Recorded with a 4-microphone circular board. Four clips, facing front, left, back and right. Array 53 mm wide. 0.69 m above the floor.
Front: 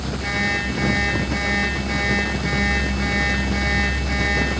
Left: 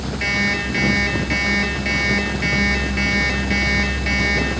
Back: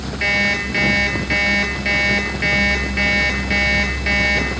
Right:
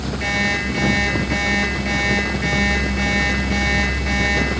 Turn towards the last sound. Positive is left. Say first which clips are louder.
# even, back 5 dB
turn(degrees=165)